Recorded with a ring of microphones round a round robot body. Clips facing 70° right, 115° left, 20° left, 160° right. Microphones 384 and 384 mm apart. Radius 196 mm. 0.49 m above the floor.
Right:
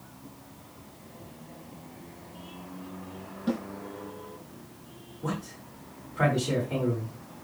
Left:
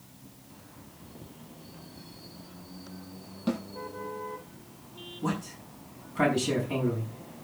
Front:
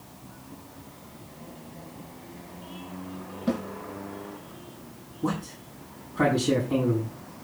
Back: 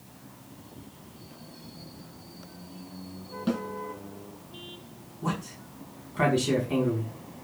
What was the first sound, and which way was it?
A snare drum, 170° left.